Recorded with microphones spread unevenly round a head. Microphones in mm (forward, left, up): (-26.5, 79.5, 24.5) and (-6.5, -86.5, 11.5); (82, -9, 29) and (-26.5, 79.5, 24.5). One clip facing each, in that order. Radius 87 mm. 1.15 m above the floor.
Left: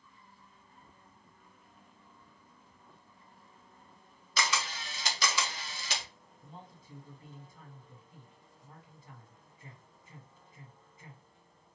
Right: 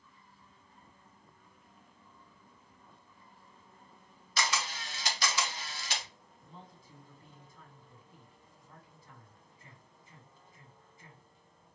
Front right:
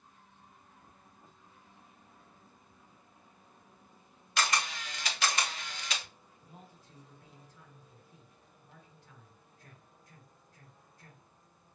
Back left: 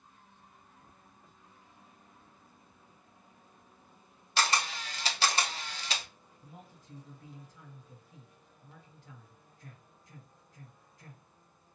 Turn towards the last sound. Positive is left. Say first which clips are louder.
# left 2 dB, back left 2 dB
turn(degrees=170)